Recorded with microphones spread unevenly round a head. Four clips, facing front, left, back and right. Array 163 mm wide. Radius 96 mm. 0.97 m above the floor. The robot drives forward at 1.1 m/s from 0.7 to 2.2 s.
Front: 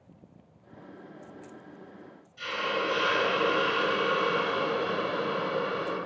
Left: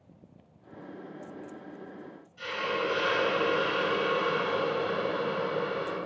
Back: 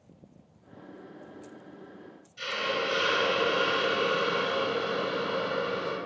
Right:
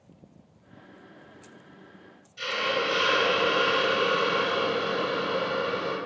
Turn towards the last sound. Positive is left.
turn(degrees=-115)